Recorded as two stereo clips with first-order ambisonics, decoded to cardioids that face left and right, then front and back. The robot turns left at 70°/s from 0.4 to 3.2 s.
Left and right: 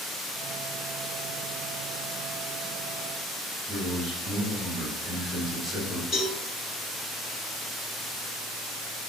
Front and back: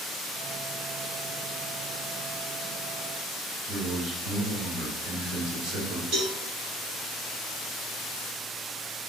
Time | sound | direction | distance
3.7 | a man speaking | 170° left | 2 m
6.1 | a cowbell | 150° left | 1.8 m